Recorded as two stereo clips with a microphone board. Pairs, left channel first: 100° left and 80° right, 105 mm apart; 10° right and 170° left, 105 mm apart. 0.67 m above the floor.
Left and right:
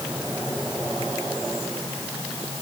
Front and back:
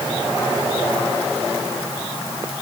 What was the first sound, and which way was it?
Only background noise.